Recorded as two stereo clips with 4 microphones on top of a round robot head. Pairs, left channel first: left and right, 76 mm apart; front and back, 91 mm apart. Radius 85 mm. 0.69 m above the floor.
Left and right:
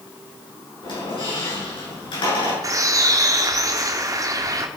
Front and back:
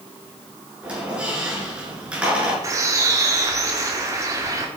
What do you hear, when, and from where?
0.8 s a squeak: 100° left, 6.5 m
2.6 s a bird: 130° right, 1.9 m